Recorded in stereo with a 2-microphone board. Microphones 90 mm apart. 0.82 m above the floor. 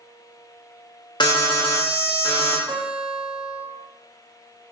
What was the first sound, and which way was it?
An alarm, 60° left (ahead or behind).